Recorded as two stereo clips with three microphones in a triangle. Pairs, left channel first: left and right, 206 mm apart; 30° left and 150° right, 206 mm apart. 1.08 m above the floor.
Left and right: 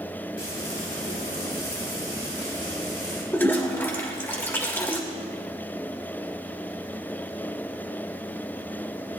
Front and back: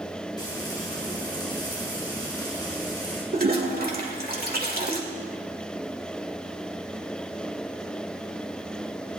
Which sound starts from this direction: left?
Frying, at 0.4 s.